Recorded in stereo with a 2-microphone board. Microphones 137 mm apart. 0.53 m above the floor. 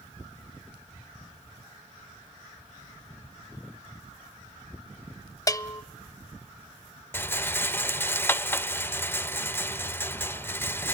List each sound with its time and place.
5.5 s a bell: 25° left (ahead or behind), 0.6 m
7.1 s a rattle: 15° left (ahead or behind), 0.6 m